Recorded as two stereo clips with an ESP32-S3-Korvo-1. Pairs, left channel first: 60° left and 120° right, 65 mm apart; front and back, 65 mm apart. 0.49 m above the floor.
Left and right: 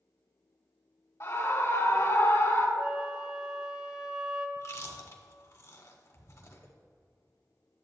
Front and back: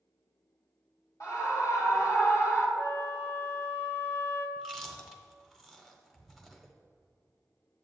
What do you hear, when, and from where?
1.2 s a scream: 25° left, 2.0 m
2.8 s a flute: 50° right, 0.8 m
4.6 s chewing: 85° left, 0.8 m